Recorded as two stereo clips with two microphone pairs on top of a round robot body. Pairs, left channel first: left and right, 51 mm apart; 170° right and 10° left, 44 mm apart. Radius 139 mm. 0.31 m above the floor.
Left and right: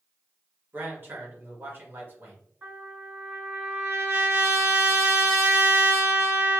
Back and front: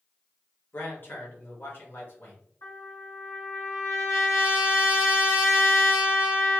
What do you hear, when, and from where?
0.7 s a man speaking: 135° right, 2.0 m
2.6 s a trumpet: 145° right, 2.5 m